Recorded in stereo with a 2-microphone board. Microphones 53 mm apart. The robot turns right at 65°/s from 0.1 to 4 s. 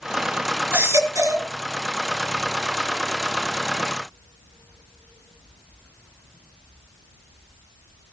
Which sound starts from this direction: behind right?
A baby crying, at 0.7 s.